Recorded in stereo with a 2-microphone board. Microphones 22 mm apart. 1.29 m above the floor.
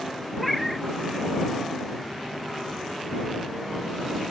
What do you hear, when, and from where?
0.4 s a cat meowing: 5° right (ahead or behind)